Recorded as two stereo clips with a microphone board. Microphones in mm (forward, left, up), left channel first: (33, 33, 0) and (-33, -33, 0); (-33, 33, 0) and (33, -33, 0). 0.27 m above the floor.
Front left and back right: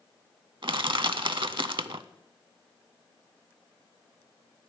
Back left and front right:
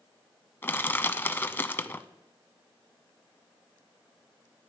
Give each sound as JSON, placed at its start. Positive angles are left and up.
{"t": 0.6, "sound": "crushing", "azimuth_deg": -160, "distance_m": 0.5}